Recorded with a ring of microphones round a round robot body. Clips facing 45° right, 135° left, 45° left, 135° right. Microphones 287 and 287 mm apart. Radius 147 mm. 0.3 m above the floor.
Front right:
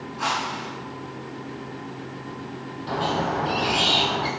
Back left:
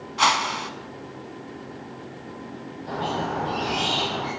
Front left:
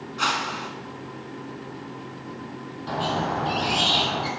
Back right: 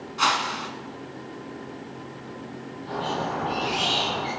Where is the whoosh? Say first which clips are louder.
Back left 4 dB, back right 1 dB; 140° left, 0.9 m.